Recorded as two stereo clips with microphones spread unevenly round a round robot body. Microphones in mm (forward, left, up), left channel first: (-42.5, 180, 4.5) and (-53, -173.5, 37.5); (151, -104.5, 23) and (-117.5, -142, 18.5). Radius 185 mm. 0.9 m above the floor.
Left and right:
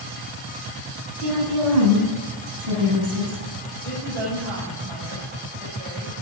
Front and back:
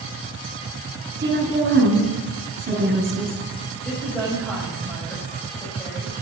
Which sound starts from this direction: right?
A woman speaking, at 3.9 s.